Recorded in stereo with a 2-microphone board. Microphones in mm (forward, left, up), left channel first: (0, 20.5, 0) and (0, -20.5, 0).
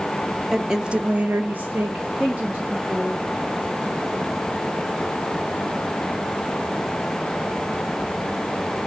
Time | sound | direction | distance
0.5 | a woman speaking | 10° right (ahead or behind) | 1.0 m